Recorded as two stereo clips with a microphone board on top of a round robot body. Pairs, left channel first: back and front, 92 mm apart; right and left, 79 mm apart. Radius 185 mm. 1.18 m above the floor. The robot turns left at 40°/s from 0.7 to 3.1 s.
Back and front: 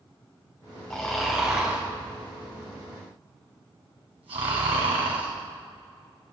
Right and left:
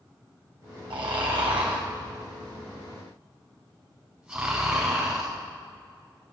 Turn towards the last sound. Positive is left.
turn(degrees=15)